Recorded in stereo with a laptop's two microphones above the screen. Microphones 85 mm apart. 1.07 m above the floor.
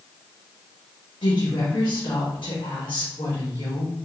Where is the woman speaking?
75° left (ahead or behind), 1.4 m.